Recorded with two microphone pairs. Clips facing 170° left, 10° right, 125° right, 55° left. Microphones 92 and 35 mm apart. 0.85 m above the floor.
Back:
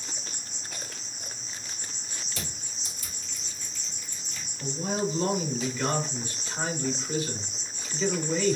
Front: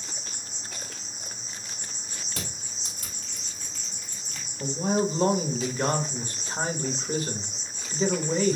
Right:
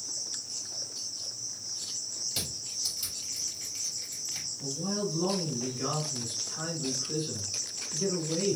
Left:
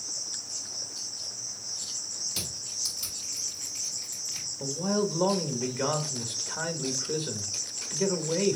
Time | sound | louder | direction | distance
0.0 | an insect | even, left 1 dB | 60° right | 2.5 m
2.3 | crushing | front 3 dB, even | 45° right | 2.5 m
4.6 | a man speaking | front 4 dB, left 5 dB | 35° left | 1.1 m